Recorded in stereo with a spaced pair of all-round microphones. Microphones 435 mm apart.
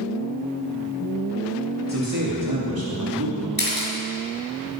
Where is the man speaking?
35° right (ahead or behind), 2.5 m; by 3.5 s 65° right (ahead or behind), 3 m.